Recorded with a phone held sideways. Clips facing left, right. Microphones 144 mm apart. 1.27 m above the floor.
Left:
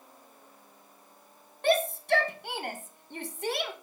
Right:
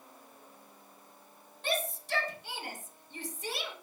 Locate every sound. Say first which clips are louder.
1.6 s a shout: left 9 dB; 60° left (ahead or behind), 1.9 m